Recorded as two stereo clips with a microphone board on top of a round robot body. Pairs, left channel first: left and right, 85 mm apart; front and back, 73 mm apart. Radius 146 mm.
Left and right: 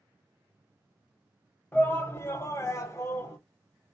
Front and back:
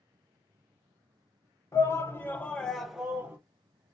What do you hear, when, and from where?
1.7 s a shout: 30° left, 1.2 m; by 3.4 s 130° left, 1.0 m